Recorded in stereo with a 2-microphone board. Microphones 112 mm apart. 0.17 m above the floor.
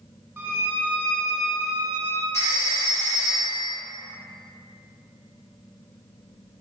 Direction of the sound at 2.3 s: 25° left (ahead or behind).